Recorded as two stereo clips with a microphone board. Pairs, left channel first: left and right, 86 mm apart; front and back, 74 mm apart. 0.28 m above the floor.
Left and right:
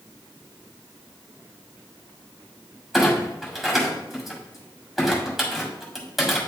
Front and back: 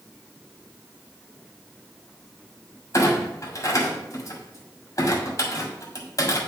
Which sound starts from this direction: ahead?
A clunk, at 2.9 s.